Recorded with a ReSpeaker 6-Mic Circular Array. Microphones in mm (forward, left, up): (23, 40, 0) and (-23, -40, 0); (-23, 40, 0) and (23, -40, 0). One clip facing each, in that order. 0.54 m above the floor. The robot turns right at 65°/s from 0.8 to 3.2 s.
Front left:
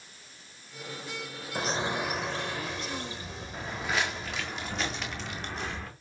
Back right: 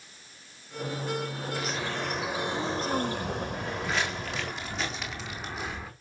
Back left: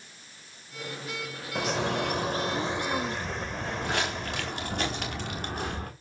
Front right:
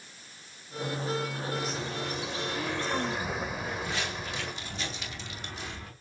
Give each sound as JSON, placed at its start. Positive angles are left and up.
{"t": 1.6, "sound": "a bird", "azimuth_deg": 110, "distance_m": 1.3}
{"t": 3.5, "sound": "footsteps", "azimuth_deg": 145, "distance_m": 4.5}